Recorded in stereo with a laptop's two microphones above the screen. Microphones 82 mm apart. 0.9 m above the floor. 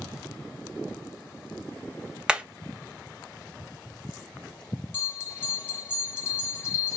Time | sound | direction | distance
2.3 | hammering | 10° right (ahead or behind) | 0.6 m
4.9 | a bell | 35° left (ahead or behind) | 1.2 m